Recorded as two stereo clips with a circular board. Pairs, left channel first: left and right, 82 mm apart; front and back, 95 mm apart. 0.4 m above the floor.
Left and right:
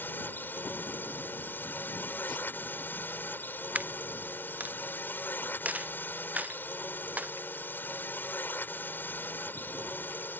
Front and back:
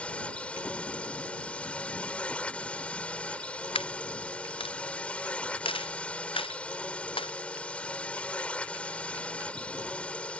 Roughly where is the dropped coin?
Ahead.